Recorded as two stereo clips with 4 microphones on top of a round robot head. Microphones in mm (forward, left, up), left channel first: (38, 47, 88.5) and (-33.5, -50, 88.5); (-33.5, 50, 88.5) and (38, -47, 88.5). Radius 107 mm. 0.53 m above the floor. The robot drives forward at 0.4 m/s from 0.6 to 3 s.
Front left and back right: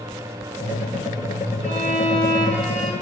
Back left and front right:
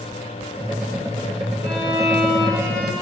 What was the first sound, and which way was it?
A violin, 115° right.